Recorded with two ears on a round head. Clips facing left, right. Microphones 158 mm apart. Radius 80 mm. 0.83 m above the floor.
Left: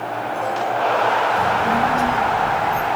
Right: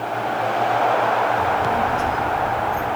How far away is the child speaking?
About 4 m.